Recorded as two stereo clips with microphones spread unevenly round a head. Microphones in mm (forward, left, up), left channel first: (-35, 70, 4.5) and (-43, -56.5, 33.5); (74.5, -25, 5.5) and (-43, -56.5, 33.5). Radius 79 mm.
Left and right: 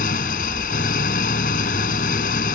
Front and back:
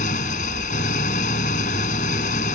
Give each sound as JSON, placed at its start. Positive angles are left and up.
{"t": 0.0, "sound": "an engine running", "azimuth_deg": 55}